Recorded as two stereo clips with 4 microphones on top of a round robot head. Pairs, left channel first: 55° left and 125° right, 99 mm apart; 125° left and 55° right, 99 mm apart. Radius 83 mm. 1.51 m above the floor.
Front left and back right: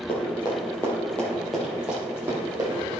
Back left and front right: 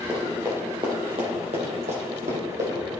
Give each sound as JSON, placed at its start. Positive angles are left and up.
{"t": 0.1, "sound": "running footsteps", "azimuth_deg": 15, "distance_m": 2.0}